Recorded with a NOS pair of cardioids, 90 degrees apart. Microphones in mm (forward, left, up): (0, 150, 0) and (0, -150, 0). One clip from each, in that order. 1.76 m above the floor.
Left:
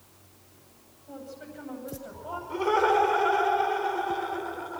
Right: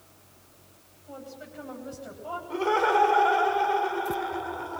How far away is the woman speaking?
About 10 m.